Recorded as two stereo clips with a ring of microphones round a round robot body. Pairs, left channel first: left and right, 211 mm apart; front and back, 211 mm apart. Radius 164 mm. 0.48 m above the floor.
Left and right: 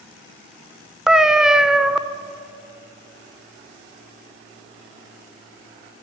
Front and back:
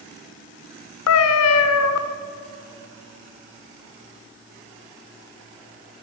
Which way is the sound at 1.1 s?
Straight ahead.